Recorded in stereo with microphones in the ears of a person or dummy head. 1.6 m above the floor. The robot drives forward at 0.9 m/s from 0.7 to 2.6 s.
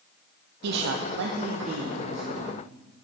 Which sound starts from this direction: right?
A man speaking, at 0.6 s.